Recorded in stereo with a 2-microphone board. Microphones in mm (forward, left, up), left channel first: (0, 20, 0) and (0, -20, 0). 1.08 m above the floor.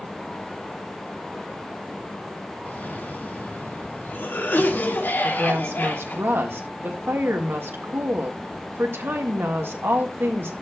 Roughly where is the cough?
Left.